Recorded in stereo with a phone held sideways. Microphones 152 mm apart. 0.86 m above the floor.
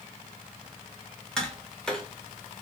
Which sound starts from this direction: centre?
Tapping, at 1.4 s.